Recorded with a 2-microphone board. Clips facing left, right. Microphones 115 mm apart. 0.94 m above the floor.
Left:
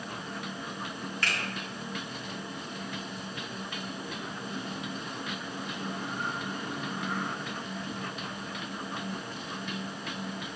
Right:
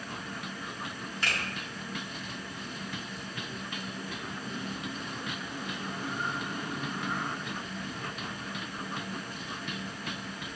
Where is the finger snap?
20° right (ahead or behind), 1.4 m.